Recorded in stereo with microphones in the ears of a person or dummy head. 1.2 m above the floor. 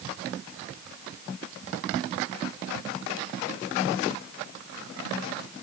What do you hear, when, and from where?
Only background noise.